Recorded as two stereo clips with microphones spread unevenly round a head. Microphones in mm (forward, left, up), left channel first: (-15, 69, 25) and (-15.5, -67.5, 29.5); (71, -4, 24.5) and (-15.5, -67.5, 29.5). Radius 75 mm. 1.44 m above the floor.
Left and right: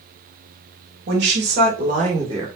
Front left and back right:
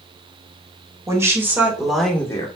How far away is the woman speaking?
About 2.5 m.